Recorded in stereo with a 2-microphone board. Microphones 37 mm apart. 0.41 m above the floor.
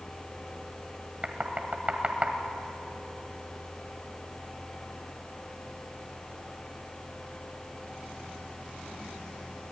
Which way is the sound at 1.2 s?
40° right (ahead or behind).